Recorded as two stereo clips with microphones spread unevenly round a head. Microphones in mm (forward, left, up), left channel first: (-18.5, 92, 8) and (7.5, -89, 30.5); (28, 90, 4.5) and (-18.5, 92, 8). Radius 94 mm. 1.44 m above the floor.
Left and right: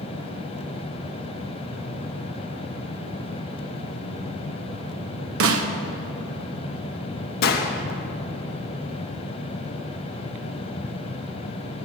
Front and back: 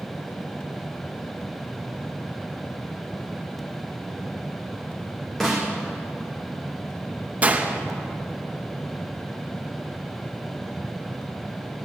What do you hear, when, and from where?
5.4 s a snare drum: 90° right, 0.8 m
7.4 s a gunshot: 130° left, 1.0 m